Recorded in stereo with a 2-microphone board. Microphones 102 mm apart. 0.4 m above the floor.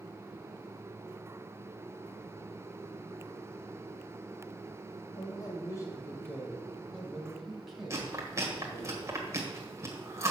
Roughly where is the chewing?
Right.